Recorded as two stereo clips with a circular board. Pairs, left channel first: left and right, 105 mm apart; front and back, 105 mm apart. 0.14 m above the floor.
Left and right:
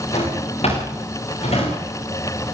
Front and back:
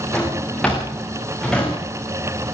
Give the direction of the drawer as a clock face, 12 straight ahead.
9 o'clock.